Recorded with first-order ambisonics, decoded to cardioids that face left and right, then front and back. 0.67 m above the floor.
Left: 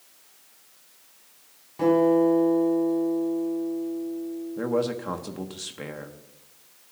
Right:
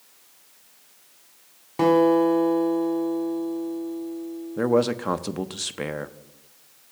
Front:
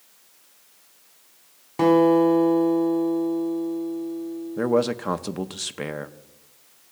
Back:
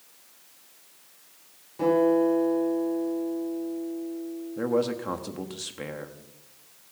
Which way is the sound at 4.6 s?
45° right.